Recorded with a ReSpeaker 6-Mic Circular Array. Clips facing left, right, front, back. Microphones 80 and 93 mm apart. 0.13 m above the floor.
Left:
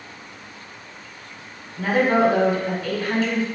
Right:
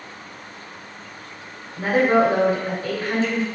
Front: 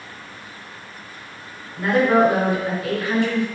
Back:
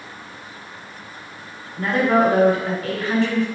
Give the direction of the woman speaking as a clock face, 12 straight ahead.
2 o'clock.